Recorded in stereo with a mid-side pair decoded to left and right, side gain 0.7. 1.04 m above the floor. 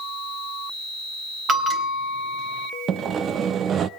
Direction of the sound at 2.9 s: 40° right.